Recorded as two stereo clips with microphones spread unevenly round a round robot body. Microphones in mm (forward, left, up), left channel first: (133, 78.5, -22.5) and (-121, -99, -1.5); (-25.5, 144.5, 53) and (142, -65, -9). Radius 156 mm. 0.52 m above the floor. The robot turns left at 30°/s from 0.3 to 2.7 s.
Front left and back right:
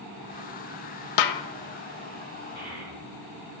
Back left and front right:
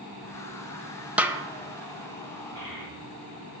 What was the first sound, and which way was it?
A snare drum, 40° left.